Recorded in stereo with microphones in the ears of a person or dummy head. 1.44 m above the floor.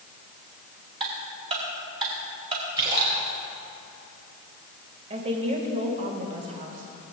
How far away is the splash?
About 3 m.